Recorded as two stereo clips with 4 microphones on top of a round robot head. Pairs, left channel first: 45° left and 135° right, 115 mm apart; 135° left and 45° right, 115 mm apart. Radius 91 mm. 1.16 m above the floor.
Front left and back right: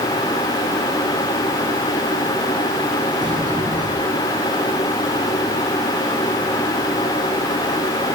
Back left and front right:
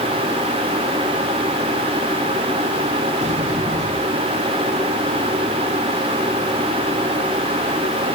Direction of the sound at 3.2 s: 80° right.